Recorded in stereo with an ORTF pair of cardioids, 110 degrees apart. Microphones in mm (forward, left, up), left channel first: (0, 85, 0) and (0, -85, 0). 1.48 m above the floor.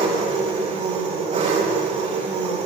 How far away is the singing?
No singing in this recording.